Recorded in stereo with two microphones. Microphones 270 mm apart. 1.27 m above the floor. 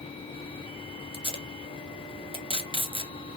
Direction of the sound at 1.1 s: 20° right (ahead or behind).